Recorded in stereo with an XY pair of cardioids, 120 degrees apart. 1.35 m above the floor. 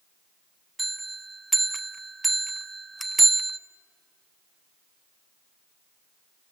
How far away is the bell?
About 0.6 m.